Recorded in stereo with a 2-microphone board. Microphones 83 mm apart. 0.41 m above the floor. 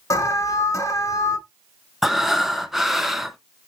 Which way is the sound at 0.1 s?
40° left (ahead or behind).